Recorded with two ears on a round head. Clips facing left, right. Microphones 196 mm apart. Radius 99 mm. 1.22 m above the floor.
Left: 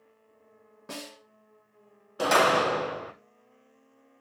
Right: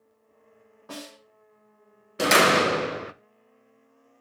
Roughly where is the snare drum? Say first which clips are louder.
Right 1 dB; left.